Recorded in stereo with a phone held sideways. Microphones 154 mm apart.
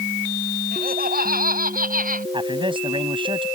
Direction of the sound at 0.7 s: 75° right (ahead or behind).